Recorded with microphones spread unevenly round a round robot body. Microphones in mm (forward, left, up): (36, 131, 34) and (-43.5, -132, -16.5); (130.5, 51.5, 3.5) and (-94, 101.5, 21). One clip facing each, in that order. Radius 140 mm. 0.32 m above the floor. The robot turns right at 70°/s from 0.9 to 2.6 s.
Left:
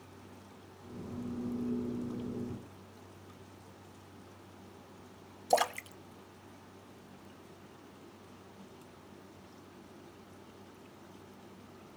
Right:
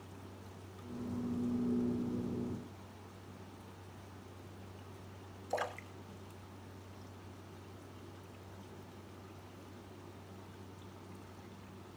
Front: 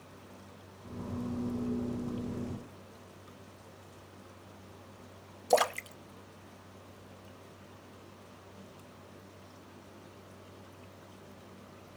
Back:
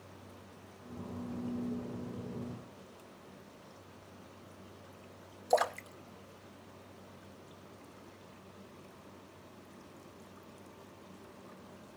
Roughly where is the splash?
Ahead left.